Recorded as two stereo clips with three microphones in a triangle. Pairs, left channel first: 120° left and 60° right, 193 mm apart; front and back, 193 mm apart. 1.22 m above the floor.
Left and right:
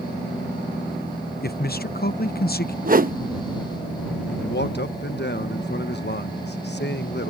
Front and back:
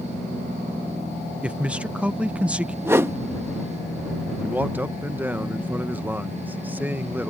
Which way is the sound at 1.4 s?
95° left.